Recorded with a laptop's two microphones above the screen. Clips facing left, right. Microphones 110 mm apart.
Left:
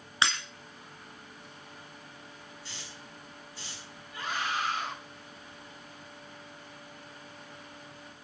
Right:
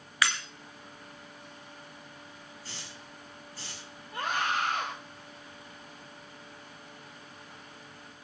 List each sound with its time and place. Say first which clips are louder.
0.2 s breaking glass: even; 25° left (ahead or behind), 2.5 m
2.6 s a hiss: right 1 dB; 45° right (ahead or behind), 6 m
4.1 s a scream: right 3 dB; 60° right (ahead or behind), 3 m